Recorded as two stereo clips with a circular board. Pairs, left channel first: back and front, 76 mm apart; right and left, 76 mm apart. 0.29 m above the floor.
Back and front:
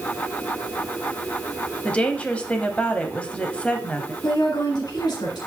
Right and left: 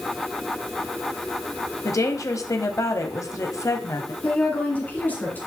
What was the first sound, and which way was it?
A woman speaking, 110° right.